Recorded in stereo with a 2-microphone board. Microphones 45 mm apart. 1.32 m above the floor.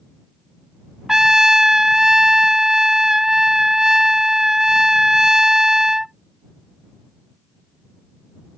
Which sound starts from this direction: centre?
A trumpet, at 1.1 s.